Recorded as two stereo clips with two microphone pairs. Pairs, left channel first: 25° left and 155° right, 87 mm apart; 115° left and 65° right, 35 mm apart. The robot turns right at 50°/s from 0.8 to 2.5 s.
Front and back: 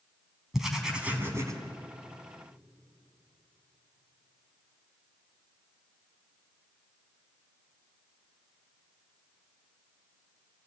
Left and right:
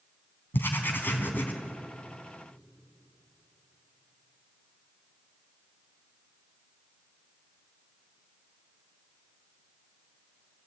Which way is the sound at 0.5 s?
120° left.